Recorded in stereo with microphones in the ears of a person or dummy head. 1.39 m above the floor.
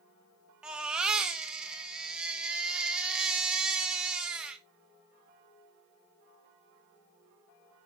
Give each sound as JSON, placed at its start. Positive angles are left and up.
{"t": 0.6, "sound": "a baby crying", "side_deg": -10, "distance_m": 0.9}